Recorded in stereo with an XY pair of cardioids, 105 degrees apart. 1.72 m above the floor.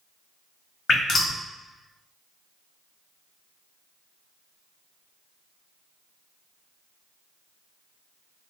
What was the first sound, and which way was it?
Dripping, 60° left.